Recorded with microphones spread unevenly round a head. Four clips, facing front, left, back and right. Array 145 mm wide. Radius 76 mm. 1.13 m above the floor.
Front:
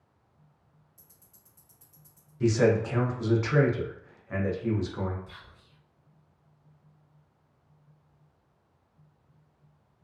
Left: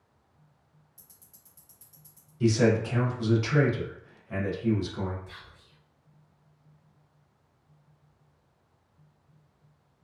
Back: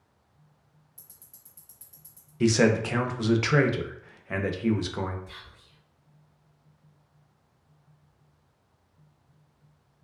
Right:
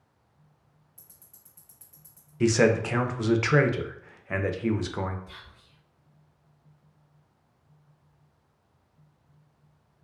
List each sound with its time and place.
1.0 s ticking: 120° right, 0.8 m
2.4 s a man speaking: 135° right, 0.5 m
5.3 s whispering: 50° left, 1.5 m